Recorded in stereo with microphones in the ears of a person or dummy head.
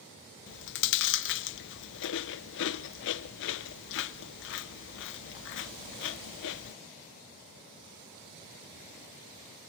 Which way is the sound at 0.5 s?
55° left (ahead or behind).